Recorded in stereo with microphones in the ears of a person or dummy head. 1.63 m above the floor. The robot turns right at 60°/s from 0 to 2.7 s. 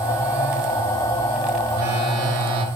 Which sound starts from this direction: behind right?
A phone buzzing, at 1.7 s.